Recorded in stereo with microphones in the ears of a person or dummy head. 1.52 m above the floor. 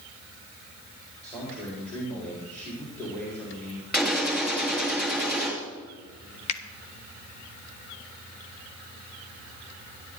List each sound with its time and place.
1.2 s a man speaking: 10° left (ahead or behind), 4 m
3.9 s a gunshot: 5° left (ahead or behind), 3.5 m
6.5 s a finger snap: 35° left (ahead or behind), 1.4 m